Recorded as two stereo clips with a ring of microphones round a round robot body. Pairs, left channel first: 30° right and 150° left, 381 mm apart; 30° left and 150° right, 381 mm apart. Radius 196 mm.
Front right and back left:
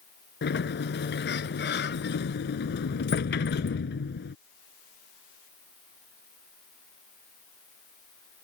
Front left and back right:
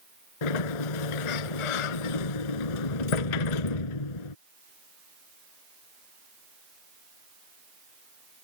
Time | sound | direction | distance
0.4 | a sliding door | 35° left | ?